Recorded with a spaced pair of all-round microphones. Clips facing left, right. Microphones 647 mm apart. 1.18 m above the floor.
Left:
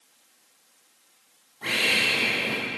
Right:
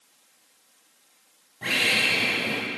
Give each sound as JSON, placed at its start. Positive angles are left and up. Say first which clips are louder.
{"t": 1.6, "sound": "a bird", "louder": "even", "side_deg": -55, "distance_m": 3.5}